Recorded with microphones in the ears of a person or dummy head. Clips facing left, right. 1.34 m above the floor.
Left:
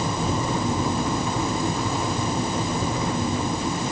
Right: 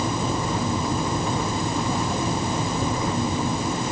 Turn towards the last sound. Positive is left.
No sound to turn to.